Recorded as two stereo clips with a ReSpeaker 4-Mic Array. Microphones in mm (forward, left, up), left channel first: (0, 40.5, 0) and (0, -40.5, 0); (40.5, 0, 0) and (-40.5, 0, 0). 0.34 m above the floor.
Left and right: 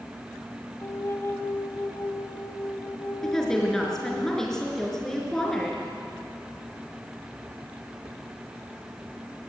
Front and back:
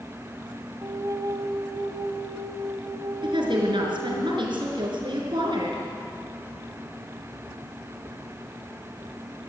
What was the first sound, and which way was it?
A flute, 140° left.